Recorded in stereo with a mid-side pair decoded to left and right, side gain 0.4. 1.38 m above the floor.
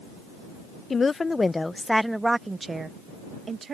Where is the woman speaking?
40° left; by 3.7 s 55° right.